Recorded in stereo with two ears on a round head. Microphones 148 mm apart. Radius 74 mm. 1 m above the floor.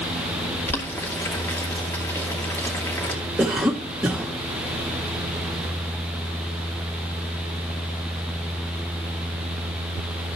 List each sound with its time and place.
0.7 s boiling: 15° left (ahead or behind), 2.5 m
3.4 s a cough: 5° right (ahead or behind), 1.3 m